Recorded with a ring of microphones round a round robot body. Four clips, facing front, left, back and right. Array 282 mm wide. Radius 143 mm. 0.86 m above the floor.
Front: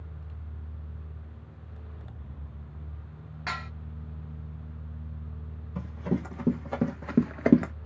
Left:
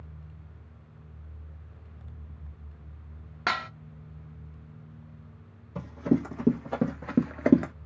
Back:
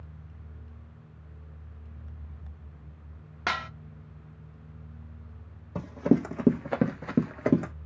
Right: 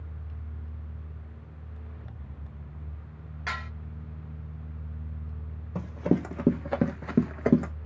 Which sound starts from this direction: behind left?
Dishes clattering, at 3.5 s.